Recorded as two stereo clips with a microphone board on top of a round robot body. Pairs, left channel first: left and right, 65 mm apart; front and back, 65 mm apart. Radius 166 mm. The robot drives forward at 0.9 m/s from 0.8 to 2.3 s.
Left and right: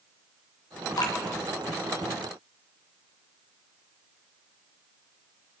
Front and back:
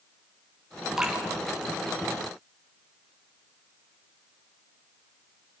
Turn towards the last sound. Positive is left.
turn(degrees=120)